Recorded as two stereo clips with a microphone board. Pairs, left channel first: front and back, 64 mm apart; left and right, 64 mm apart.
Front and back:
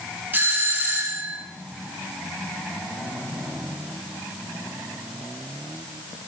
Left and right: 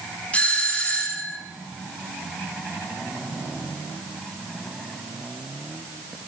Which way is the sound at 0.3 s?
145° left.